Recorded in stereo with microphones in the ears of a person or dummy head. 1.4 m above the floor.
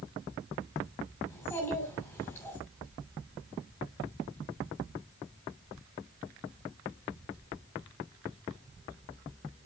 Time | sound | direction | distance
1.3 | a child speaking | 15° left (ahead or behind) | 2.5 m